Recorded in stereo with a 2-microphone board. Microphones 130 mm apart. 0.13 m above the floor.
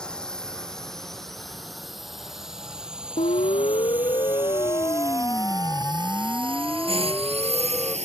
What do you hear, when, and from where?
0.0 s a drone: 5° left (ahead or behind); by 8.1 s 60° right (ahead or behind)
3.2 s a siren: 55° left (ahead or behind); by 8.0 s centre (ahead or behind)